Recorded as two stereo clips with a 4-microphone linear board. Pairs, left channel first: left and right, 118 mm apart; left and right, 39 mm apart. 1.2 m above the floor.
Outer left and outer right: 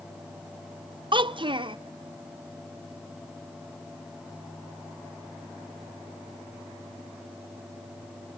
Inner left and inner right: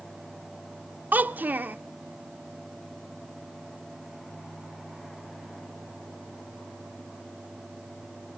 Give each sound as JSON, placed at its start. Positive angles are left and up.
{"t": 1.1, "sound": "a child speaking", "side_deg": -45, "distance_m": 0.6}